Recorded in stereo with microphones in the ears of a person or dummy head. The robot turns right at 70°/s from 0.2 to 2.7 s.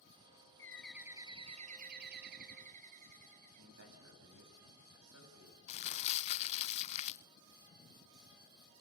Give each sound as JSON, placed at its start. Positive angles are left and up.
{"t": 0.6, "sound": "a bird", "azimuth_deg": 160, "distance_m": 0.9}
{"t": 3.6, "sound": "a man speaking", "side_deg": -75, "distance_m": 8.5}
{"t": 5.7, "sound": "crumpling", "side_deg": 30, "distance_m": 0.5}